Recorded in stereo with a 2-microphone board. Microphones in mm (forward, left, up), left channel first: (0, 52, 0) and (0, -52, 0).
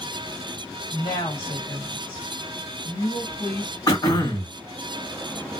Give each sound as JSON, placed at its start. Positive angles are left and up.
{"t": 0.9, "sound": "a woman speaking", "side_deg": 50, "distance_m": 1.6}
{"t": 3.9, "sound": "throat clearing", "side_deg": 40, "distance_m": 1.5}